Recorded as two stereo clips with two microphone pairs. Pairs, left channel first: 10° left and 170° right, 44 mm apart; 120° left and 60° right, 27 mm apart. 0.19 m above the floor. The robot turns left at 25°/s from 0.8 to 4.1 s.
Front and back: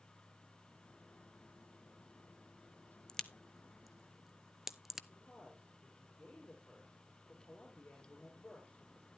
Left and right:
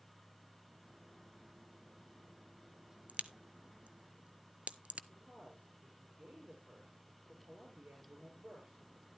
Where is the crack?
65° right, 0.5 m; by 5.0 s 90° right, 0.5 m.